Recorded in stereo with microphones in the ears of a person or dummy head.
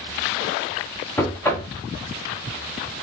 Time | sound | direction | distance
1.2 | knocking | 15° left (ahead or behind) | 0.8 m